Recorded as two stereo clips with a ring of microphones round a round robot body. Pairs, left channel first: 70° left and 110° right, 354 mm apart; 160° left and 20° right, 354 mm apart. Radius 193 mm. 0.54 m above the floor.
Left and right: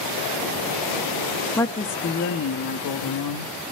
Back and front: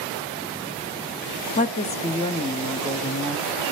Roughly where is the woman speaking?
Behind left.